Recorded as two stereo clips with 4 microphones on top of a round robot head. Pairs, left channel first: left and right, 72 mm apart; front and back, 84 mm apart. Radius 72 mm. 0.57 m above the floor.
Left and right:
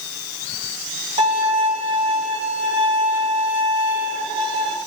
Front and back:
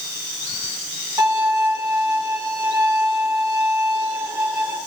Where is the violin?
110° right, 4.5 m.